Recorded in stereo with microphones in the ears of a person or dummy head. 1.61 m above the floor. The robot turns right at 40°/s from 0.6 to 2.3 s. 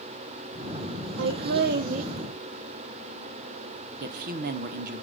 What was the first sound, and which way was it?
Laughter, 75° right.